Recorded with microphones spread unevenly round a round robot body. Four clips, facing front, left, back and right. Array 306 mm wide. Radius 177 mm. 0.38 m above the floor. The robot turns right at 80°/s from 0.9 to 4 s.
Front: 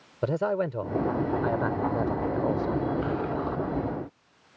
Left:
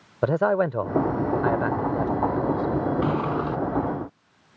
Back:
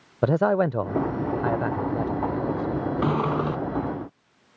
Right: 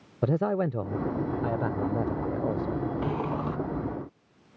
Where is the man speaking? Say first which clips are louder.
Left 5 dB, back 6 dB; 175° right; by 2.8 s 20° right.